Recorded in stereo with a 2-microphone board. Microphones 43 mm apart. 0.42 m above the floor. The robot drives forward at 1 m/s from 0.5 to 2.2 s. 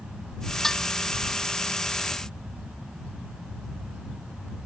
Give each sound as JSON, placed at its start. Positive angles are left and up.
{"t": 0.6, "sound": "dishes clattering", "side_deg": 10}